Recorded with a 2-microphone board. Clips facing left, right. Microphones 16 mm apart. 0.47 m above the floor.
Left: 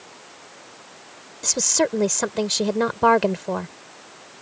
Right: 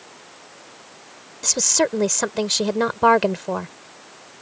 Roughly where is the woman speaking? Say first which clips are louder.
Right 1 dB; centre.